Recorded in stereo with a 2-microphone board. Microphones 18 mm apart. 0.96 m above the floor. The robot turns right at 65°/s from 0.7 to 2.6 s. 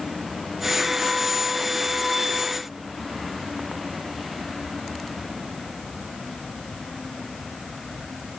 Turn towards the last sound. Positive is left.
No sound to turn to.